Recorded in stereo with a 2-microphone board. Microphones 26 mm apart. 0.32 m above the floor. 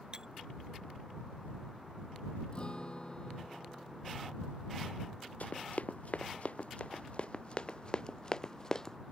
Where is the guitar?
40° left (ahead or behind).